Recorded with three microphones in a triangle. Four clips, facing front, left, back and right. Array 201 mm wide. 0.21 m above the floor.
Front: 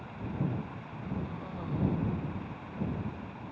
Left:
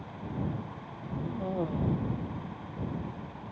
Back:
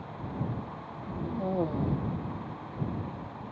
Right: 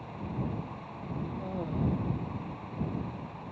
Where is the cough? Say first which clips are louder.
Left 5 dB, back 9 dB; 160° left.